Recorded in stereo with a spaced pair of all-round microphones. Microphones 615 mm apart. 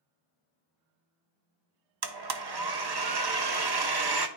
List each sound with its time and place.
2.0 s a blender: 40° right (ahead or behind), 0.6 m